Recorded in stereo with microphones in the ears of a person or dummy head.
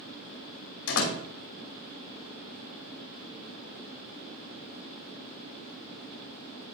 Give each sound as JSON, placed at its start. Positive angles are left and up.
{"t": 0.9, "sound": "a door slam", "side_deg": 80, "distance_m": 3.0}